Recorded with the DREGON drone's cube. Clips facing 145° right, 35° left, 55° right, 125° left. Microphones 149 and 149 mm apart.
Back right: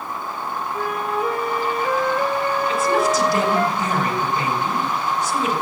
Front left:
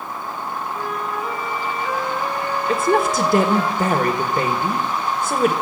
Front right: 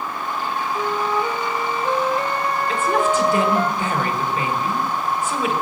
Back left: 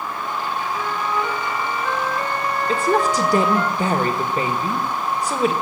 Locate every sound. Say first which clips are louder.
0.7 s a flute: back right 5 dB, front right 4 dB; 120° right, 1.2 m
2.7 s a woman speaking: front left 3 dB, back left 1 dB; 70° left, 1.7 m